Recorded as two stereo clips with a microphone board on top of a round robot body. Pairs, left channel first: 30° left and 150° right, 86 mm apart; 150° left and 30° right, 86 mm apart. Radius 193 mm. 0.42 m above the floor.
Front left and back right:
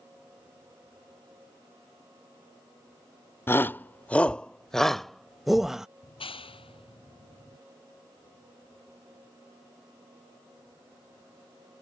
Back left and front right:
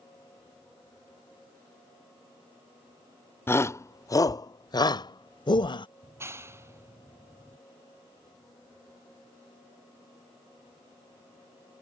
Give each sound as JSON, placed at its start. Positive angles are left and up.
{"t": 3.5, "sound": "a shout", "azimuth_deg": 90}
{"t": 6.0, "sound": "a clap", "azimuth_deg": 30}